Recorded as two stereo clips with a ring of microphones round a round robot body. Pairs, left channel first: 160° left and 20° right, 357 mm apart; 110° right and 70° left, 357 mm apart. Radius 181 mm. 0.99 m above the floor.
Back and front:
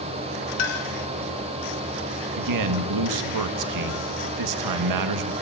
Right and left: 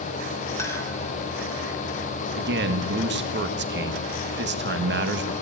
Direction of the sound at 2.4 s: 10° left.